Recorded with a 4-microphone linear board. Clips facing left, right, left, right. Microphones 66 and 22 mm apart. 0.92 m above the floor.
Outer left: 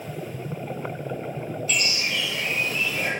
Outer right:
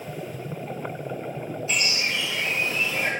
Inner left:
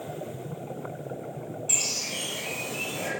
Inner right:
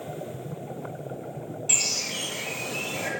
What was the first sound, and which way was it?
A bird, 30° right (ahead or behind).